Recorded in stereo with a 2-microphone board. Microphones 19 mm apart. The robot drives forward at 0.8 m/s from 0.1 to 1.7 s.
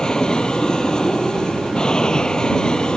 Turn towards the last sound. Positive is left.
turn(degrees=35)  # may be behind; listen again after turning